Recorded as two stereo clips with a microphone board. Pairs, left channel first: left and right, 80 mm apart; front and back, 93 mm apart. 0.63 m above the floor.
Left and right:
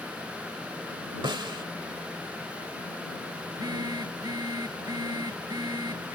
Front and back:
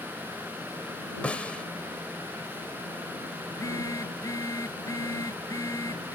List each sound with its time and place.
1.2 s a snare drum: 75° right
3.5 s a phone buzzing: 55° right